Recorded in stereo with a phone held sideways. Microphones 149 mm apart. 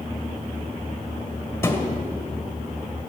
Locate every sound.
1.6 s a thud: 15° left (ahead or behind), 1.4 m